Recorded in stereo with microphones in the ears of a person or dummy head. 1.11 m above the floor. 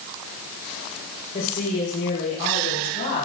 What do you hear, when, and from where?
1.3 s a woman speaking: 45° left (ahead or behind), 4 m; by 3.2 s 55° left (ahead or behind), 6.5 m